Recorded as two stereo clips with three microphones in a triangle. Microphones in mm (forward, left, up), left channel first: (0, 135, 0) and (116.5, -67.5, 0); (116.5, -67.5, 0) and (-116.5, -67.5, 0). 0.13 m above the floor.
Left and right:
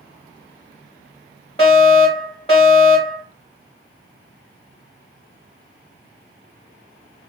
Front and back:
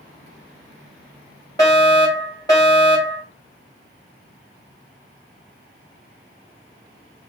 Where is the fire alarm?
65° left, 3 m.